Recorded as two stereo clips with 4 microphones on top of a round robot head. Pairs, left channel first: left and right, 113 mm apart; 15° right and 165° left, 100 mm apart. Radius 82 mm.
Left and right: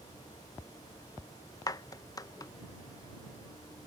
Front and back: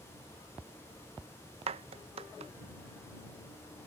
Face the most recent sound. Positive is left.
turn(degrees=150)